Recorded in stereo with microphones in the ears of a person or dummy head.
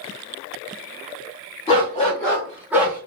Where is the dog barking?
25° left (ahead or behind), 0.9 m; by 3.0 s 15° right (ahead or behind), 1.2 m.